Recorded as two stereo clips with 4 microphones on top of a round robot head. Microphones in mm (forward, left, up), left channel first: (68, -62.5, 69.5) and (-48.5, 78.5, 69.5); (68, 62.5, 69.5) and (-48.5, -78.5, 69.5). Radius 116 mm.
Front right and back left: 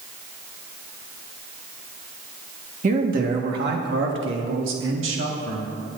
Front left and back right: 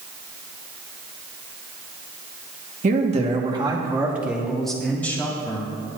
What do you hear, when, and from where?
2.8 s a man speaking: straight behind, 1.4 m; by 5.7 s 125° left, 2 m